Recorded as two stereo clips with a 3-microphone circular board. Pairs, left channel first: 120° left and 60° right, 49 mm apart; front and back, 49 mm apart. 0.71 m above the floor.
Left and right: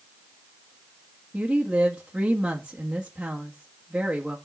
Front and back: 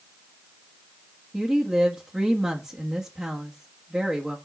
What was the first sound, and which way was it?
A woman speaking, 120° right.